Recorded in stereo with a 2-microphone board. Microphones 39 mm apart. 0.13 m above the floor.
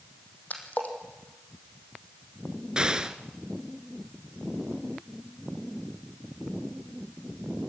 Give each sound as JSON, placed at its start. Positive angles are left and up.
{"t": 0.5, "sound": "a splash", "side_deg": 45, "distance_m": 4.5}
{"t": 2.8, "sound": "an explosion", "side_deg": -20, "distance_m": 1.6}